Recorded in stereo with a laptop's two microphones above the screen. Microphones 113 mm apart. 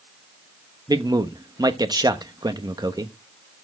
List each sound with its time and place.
0.9 s a man speaking: 35° right (ahead or behind), 1.0 m